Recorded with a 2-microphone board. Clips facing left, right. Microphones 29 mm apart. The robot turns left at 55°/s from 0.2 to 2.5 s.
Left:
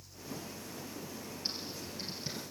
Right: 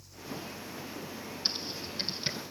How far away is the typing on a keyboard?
About 1.6 m.